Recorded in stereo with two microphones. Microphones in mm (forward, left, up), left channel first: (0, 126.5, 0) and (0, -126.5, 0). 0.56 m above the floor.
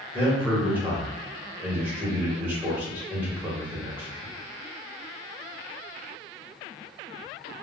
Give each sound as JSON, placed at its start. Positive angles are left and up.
{"t": 0.1, "sound": "a man speaking", "side_deg": -10, "distance_m": 1.7}